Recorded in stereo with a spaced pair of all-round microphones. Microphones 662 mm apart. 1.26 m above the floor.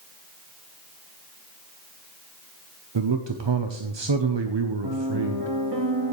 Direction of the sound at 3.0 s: 45° right (ahead or behind).